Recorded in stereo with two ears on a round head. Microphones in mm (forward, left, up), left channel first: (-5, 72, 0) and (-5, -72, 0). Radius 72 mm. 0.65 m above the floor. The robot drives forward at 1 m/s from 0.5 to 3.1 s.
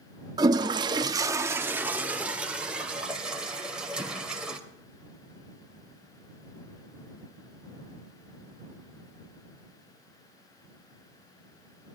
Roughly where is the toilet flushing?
Right.